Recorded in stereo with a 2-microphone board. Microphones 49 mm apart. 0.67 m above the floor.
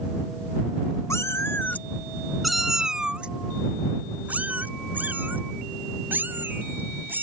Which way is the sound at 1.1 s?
75° left (ahead or behind).